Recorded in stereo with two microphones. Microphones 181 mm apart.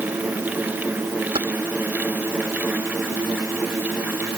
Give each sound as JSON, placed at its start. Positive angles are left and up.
{"t": 1.4, "sound": "keys jangling", "side_deg": -30}